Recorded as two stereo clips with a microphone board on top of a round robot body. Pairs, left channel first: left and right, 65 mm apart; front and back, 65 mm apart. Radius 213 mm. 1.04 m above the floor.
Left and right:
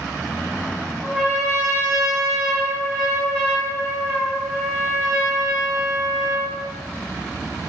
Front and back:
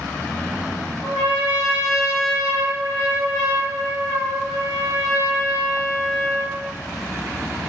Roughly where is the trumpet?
Ahead.